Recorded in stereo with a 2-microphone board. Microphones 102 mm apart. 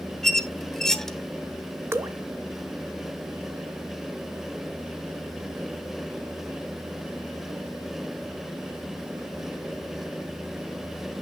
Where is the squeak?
5° left (ahead or behind), 0.6 m.